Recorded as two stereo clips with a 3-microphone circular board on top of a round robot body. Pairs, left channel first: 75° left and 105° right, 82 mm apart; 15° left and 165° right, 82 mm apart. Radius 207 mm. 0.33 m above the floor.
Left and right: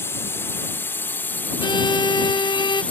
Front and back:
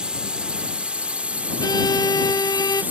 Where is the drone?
120° left; by 2.9 s 135° left.